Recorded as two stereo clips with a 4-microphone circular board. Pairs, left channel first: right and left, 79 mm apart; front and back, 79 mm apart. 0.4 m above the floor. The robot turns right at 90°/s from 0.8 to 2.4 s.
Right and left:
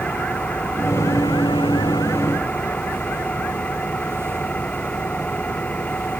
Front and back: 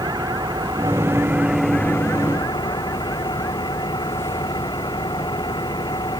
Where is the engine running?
160° right; by 6.2 s 20° right.